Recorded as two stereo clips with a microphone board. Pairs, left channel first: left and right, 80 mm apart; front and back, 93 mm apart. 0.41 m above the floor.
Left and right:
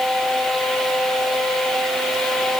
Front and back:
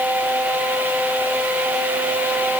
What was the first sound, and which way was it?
Only background noise.